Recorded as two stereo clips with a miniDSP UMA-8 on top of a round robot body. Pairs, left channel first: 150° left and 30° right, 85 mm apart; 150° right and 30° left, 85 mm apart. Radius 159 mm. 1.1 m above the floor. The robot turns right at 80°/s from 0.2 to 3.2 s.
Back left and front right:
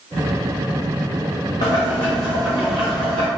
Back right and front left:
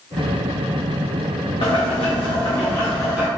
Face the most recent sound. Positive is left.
turn(degrees=-45)